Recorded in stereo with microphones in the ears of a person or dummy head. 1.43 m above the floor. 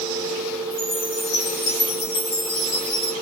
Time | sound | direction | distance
0.7 | a chime | 55° left (ahead or behind) | 1.9 m